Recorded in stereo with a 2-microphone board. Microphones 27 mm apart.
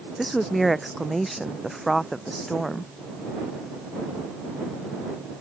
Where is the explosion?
I don't hear an explosion.